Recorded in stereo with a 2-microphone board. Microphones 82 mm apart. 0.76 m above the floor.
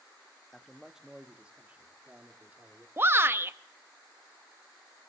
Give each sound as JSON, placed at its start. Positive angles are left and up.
{"t": 0.5, "sound": "a man speaking", "side_deg": 5, "distance_m": 0.7}
{"t": 3.0, "sound": "a shout", "side_deg": -30, "distance_m": 0.6}